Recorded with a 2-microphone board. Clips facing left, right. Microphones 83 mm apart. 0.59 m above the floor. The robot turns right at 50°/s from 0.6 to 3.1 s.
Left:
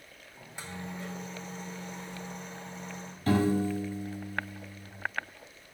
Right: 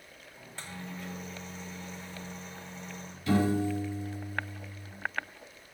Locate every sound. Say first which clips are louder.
0.4 s a microwave: left 2 dB; 15° left, 1.6 m; by 3.2 s 140° left, 1.6 m
3.3 s a piano: left 1 dB; 50° left (ahead or behind), 4 m